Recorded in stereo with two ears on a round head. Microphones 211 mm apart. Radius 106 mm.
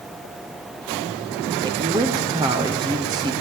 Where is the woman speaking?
15° right (ahead or behind), 0.7 m.